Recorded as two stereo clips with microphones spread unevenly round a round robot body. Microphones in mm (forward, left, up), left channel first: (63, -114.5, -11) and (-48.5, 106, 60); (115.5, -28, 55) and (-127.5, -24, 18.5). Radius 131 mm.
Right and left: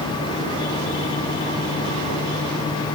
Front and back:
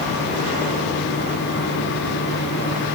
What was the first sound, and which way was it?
Only background noise.